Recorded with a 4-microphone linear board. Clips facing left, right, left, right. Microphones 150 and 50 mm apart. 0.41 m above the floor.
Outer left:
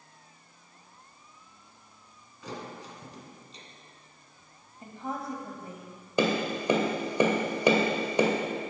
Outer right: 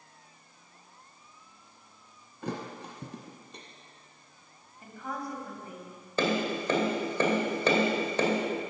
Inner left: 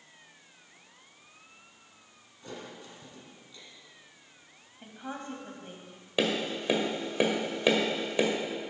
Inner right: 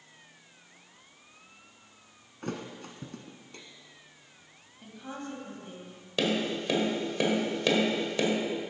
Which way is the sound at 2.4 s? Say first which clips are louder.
Outer right 3 dB, inner right 6 dB; 60° right (ahead or behind).